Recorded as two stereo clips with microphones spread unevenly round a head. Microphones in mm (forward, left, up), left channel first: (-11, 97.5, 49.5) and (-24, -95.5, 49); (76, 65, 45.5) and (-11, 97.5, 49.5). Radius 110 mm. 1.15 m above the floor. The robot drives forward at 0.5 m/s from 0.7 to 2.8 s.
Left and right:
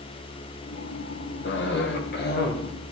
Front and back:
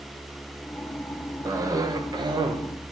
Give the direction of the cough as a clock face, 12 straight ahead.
9 o'clock.